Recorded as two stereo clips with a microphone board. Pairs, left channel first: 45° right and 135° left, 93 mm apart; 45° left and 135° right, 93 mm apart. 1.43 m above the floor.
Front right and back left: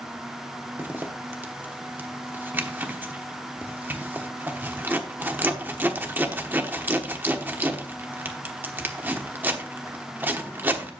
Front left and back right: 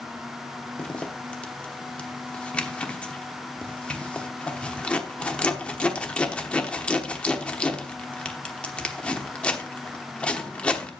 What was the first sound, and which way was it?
A zipper, 105° left.